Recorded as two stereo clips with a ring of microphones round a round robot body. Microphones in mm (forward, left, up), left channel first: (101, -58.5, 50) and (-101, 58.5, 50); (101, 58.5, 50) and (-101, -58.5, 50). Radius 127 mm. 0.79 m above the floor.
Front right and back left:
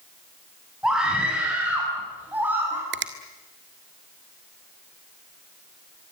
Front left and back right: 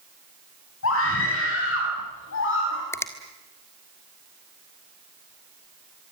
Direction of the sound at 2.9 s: 110° left.